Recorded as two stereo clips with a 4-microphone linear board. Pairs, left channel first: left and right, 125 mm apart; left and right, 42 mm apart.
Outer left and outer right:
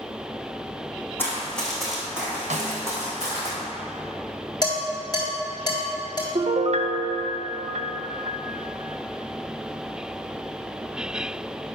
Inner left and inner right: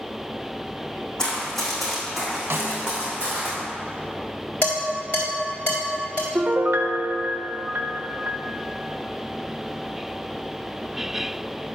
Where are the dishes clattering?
35° left (ahead or behind), 3 m.